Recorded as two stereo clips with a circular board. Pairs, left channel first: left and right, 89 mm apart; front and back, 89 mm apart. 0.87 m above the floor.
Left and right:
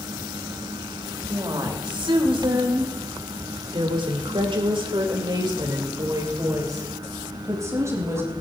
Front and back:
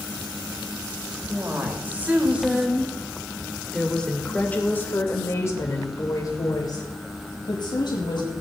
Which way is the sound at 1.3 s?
115° right.